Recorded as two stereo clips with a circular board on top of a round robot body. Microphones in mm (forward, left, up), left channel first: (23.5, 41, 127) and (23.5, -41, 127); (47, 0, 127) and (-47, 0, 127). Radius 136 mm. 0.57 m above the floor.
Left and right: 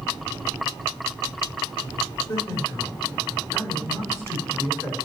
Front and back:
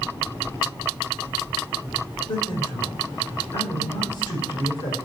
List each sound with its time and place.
2.3 s a man speaking: 30° left, 3.5 m